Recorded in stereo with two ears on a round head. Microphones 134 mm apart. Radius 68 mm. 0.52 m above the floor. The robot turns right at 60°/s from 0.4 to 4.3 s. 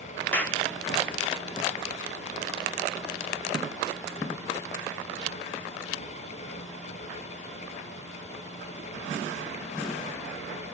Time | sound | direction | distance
0.3 | a clap | 10° left (ahead or behind) | 0.8 m